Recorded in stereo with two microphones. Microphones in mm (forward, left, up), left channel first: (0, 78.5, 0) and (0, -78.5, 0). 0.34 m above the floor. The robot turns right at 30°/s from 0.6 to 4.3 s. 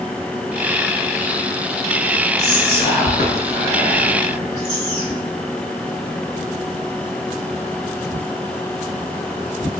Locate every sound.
2.4 s whispering: 50° left, 1.3 m; by 5.2 s 110° left, 1.3 m